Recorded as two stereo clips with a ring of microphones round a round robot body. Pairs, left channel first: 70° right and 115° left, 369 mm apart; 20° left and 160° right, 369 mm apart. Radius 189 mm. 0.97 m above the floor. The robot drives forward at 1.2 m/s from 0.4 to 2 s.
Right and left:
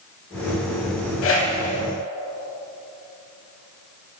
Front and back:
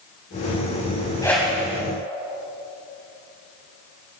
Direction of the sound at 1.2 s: 50° right.